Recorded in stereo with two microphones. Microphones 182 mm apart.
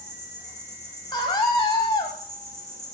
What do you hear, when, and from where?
0.0 s an insect: 15° right (ahead or behind), 2.5 m
1.1 s a scream: 25° left (ahead or behind), 1.0 m